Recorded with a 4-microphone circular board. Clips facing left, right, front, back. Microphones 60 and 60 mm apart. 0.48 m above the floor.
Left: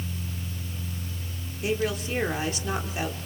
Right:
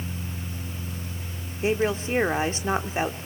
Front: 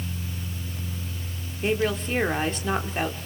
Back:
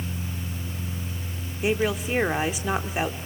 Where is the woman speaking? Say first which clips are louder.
Right 3 dB, even; 105° right, 1.2 m.